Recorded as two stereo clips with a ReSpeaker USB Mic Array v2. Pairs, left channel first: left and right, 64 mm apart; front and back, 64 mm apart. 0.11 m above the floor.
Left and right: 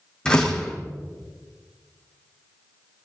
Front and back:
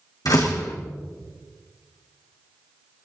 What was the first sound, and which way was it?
A door slam, 15° left.